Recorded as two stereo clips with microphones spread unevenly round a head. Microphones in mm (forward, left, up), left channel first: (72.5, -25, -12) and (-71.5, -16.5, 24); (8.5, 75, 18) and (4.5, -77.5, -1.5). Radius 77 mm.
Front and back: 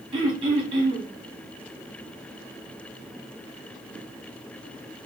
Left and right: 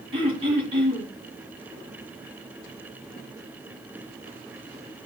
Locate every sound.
0.1 s throat clearing: 150° right, 1.1 m